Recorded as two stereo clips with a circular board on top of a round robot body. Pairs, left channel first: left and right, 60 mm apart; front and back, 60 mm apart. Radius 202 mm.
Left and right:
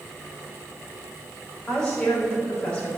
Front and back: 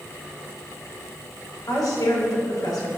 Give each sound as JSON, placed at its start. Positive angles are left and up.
{"t": 1.7, "sound": "a woman speaking", "azimuth_deg": 15, "distance_m": 5.0}